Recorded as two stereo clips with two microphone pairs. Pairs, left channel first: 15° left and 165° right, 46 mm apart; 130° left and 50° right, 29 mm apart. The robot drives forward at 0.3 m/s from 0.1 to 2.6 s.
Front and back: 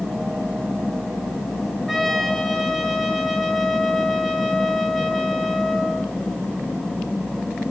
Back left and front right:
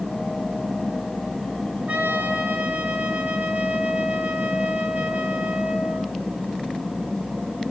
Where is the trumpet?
80° right, 4 m.